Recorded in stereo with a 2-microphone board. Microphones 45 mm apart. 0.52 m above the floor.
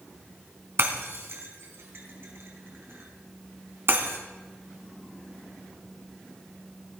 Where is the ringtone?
I don't hear a ringtone.